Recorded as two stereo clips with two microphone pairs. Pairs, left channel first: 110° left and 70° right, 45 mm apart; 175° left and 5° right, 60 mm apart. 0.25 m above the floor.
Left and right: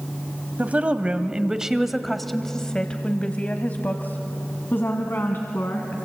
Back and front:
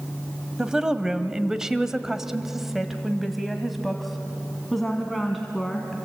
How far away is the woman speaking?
About 1.3 m.